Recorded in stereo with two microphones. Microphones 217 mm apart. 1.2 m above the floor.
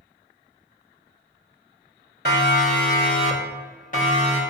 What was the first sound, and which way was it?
A siren, 55° left (ahead or behind).